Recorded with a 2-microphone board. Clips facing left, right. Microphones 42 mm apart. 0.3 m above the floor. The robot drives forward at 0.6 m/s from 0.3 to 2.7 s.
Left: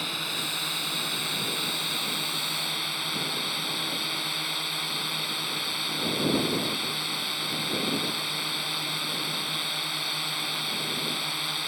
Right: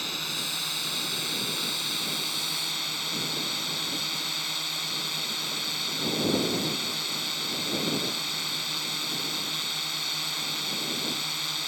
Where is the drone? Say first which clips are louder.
Left 2 dB; 10° left (ahead or behind).